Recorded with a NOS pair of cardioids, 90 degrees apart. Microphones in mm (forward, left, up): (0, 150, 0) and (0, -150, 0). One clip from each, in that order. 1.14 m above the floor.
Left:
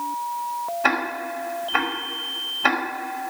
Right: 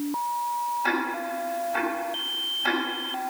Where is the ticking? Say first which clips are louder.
Left 4 dB; 70° left, 4.5 m.